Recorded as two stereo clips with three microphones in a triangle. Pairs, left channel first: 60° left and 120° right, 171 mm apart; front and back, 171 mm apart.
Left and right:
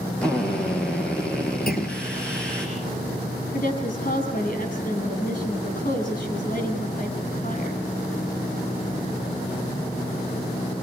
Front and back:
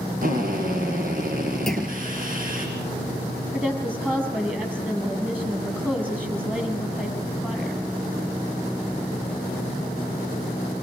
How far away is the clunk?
About 4.5 m.